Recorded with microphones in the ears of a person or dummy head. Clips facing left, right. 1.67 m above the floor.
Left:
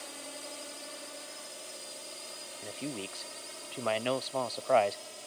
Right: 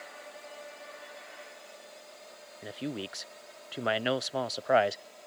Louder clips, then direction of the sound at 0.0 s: Left 1 dB; 55° left (ahead or behind).